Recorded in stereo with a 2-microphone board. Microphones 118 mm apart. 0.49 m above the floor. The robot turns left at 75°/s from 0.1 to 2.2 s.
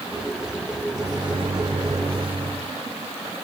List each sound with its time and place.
0.9 s a microwave: 20° right, 0.9 m; by 2.6 s 120° right, 0.9 m